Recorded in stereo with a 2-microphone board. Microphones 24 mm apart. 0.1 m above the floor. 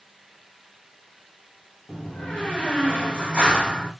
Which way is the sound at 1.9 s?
55° left (ahead or behind).